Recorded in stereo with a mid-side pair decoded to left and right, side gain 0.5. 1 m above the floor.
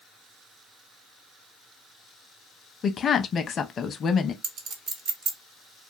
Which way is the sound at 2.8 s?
40° left.